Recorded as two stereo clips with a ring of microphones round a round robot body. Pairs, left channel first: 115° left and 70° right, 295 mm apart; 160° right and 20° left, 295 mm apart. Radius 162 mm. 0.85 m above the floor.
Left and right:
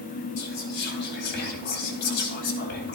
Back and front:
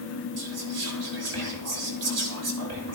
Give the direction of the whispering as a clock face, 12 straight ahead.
10 o'clock.